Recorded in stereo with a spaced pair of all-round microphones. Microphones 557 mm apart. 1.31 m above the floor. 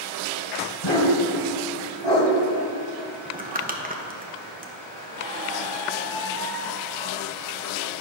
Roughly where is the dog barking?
Left.